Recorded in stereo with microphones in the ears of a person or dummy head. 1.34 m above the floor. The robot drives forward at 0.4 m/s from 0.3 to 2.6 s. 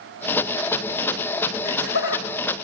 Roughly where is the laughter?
Left.